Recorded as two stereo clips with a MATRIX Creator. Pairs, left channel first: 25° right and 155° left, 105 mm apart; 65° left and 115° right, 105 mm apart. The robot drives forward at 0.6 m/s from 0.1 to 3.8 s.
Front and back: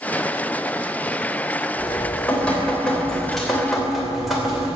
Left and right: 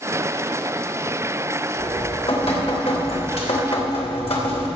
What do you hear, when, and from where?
1.8 s dripping: 50° left, 3.5 m; by 4.7 s 70° left, 3 m